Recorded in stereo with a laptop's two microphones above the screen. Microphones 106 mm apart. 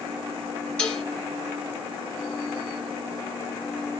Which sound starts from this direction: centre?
Dishes clattering, at 0.8 s.